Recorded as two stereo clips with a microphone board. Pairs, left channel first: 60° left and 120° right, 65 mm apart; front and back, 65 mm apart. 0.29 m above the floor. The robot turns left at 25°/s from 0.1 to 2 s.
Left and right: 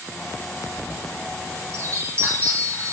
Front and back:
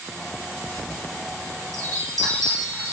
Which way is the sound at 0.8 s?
135° right.